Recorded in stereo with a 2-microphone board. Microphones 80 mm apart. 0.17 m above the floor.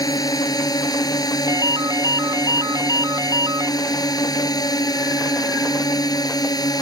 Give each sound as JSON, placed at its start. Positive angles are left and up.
{"t": 0.0, "sound": "a drone", "side_deg": 55}
{"t": 1.5, "sound": "a ringtone", "side_deg": -50}